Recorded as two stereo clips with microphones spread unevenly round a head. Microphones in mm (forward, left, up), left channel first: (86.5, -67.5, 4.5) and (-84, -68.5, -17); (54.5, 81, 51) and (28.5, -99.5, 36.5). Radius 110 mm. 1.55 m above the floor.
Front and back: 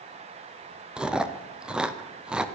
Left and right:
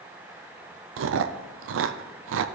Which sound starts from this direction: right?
Chewing, at 1.0 s.